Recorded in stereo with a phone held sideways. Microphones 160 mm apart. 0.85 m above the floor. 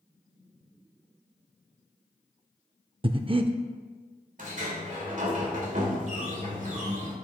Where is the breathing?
35° right (ahead or behind), 0.5 m.